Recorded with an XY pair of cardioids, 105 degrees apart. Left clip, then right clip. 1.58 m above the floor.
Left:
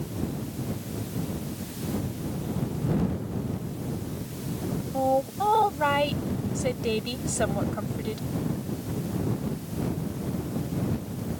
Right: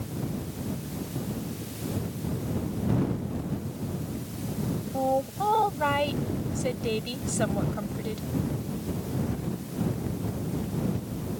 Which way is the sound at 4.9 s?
10° left.